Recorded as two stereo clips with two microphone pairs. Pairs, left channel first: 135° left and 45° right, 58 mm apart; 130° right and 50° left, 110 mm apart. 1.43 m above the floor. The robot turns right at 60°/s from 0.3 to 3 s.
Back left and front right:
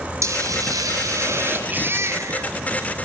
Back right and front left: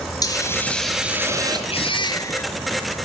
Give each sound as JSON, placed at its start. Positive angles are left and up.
{"t": 0.2, "sound": "a hiss", "azimuth_deg": -75, "distance_m": 4.5}
{"t": 1.7, "sound": "a baby crying", "azimuth_deg": -105, "distance_m": 1.7}